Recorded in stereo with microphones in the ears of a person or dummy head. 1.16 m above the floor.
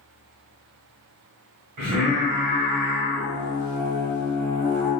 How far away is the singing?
About 1.1 m.